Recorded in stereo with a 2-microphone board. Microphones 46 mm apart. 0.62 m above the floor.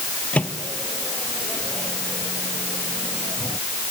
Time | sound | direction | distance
0.3 | a microwave | 30° left (ahead or behind) | ?